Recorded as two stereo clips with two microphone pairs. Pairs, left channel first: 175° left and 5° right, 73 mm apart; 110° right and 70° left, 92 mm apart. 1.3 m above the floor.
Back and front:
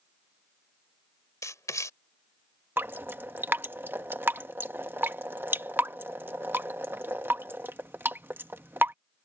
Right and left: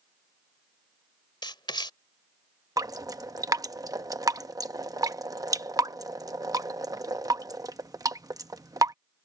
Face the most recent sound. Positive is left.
turn(degrees=45)